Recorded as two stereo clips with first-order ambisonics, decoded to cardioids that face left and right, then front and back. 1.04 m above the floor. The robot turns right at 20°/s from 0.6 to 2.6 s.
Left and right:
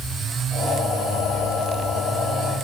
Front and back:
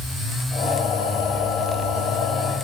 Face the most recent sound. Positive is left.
No sound to turn to.